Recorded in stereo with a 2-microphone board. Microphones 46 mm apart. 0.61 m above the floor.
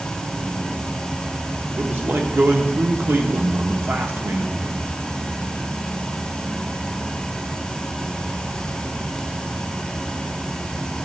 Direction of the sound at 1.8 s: 55° right (ahead or behind).